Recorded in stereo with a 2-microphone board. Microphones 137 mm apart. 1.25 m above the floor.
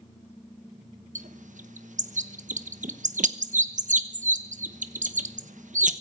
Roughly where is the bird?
Right.